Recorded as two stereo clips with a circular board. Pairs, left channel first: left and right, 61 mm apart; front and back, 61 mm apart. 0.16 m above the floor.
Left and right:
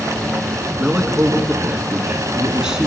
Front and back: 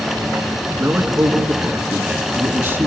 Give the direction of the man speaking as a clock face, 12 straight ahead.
5 o'clock.